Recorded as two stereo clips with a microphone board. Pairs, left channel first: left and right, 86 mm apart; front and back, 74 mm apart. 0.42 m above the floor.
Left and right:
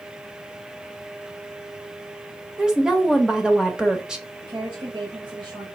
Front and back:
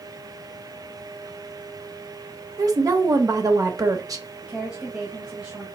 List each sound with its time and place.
2.6 s a woman speaking: 170° right, 1.2 m
4.4 s a woman speaking: 105° right, 1.9 m